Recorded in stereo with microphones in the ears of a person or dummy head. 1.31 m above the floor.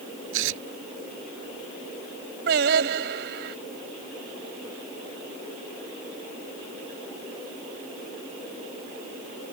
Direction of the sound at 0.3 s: 80° right.